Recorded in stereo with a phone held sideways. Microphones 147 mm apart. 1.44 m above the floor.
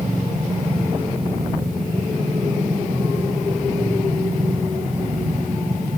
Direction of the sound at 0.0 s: 60° right (ahead or behind).